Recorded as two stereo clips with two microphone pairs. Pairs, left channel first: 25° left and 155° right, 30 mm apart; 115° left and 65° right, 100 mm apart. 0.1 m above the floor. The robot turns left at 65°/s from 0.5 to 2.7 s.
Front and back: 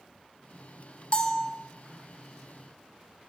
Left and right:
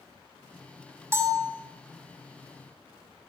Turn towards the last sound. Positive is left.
turn(degrees=-115)